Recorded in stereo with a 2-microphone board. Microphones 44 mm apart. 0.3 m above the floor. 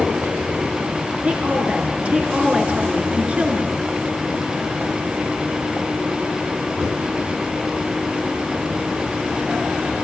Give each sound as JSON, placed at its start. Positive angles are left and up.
{"t": 1.2, "sound": "a woman speaking", "side_deg": -30, "distance_m": 5.0}